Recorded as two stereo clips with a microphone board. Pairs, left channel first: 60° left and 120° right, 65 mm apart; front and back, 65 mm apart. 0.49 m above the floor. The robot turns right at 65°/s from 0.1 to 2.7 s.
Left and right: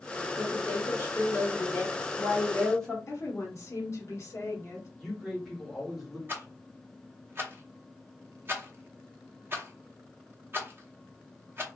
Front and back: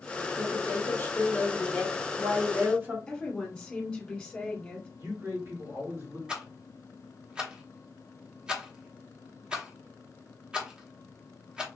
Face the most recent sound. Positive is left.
turn(degrees=-115)